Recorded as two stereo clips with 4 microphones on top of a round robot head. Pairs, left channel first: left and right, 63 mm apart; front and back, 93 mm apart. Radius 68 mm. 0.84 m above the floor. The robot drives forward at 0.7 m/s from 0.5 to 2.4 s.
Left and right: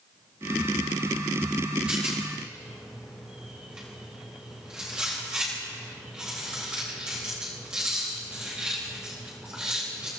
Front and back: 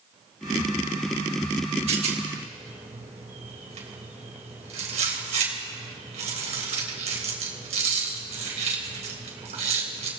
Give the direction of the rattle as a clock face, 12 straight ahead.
6 o'clock.